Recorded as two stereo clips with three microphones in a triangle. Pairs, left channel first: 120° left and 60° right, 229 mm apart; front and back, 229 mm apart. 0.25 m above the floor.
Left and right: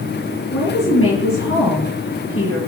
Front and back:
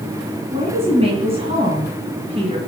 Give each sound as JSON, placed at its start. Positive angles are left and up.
{"t": 0.5, "sound": "a woman speaking", "azimuth_deg": 115, "distance_m": 2.5}